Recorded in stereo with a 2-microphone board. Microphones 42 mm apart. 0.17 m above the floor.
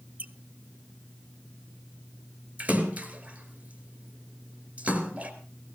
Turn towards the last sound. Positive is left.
turn(degrees=-35)  # may be behind; listen again after turning